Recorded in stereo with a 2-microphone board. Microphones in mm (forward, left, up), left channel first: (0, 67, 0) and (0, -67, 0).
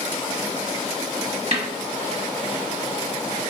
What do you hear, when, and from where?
1.5 s a snare drum: 50° right (ahead or behind), 1.1 m